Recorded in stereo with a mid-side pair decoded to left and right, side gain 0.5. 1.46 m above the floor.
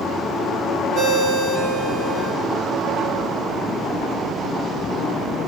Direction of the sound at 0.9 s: 60° right.